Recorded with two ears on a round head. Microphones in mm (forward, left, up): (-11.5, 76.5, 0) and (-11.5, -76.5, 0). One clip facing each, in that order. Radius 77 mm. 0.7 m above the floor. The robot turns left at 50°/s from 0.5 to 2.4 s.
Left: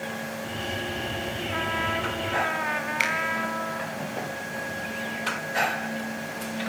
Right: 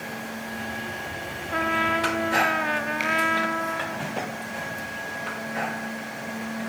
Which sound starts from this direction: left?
A finger snap, at 3.0 s.